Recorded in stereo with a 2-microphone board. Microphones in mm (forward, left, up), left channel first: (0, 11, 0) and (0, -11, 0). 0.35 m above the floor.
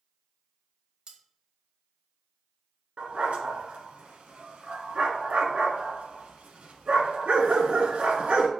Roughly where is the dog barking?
Right.